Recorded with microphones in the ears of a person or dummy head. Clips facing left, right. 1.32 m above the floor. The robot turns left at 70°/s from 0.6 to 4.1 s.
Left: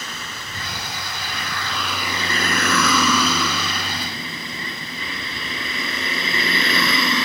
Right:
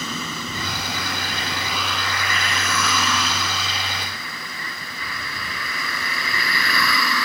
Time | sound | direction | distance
0.0 | a vehicle | 95° right | ?